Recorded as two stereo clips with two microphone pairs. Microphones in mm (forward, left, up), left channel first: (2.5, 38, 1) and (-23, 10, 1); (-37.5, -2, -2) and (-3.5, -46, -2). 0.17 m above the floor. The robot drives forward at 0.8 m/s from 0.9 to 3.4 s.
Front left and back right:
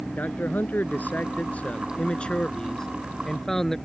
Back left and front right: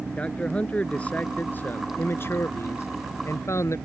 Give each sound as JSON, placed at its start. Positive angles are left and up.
{"t": 0.2, "sound": "a man speaking", "azimuth_deg": 65}